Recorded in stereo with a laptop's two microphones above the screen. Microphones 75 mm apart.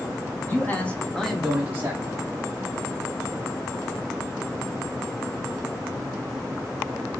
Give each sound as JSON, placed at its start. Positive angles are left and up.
{"t": 0.5, "sound": "a man speaking", "side_deg": 25, "distance_m": 1.6}